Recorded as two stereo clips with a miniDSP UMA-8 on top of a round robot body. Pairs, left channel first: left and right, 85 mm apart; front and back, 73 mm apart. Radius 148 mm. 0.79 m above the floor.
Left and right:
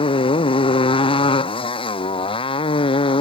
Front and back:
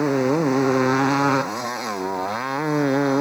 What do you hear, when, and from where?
0.0 s a motorcycle: 90° left; by 3.2 s 95° left